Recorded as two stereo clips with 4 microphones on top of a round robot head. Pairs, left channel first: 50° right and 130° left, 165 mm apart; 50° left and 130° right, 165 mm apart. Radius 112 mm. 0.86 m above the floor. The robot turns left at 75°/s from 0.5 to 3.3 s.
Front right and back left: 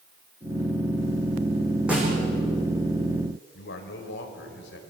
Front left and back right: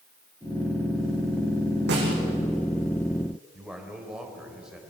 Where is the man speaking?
40° right, 3.5 m.